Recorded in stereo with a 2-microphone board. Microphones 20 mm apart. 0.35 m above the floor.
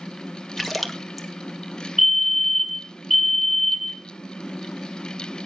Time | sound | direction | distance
0.6 | a splash | centre (ahead or behind) | 1.6 m
2.0 | a fire alarm | 10° right (ahead or behind) | 2.5 m